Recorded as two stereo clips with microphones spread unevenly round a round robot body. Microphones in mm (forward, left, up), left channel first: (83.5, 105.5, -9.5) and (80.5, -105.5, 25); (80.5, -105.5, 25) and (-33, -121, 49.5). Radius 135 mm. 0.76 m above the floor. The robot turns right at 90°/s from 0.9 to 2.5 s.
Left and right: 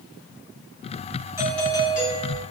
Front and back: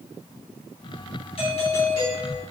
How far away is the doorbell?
About 3.5 m.